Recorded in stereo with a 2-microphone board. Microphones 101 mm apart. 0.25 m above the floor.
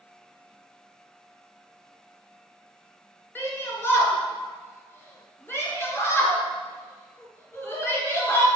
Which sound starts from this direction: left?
A shout, at 3.4 s.